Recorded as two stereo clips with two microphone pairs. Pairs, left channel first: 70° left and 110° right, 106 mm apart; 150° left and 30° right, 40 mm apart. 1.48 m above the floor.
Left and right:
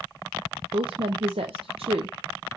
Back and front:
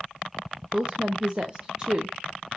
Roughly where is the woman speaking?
Right.